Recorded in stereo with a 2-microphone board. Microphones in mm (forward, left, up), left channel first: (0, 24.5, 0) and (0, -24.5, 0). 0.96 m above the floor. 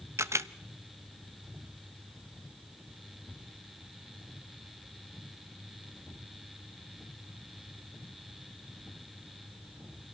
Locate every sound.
0.2 s a camera shutter: 70° right (ahead or behind), 0.6 m